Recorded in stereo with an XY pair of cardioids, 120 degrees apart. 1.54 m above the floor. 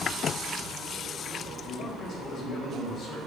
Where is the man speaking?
70° left, 0.9 m; by 3.2 s 50° left, 1.9 m.